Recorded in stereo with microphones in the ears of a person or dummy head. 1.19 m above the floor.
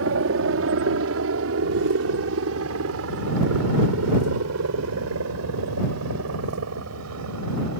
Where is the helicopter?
65° right (ahead or behind); by 7.8 s 80° right.